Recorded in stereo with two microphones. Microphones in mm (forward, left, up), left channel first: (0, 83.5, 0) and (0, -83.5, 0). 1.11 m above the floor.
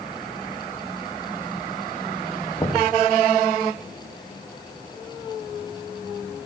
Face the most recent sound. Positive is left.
turn(degrees=10)  # may be behind; listen again after turning